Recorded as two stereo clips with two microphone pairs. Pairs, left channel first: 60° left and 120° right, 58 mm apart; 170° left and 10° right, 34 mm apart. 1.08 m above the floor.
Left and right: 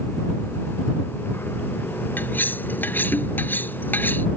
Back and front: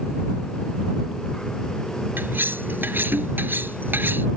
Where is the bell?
No bell in this recording.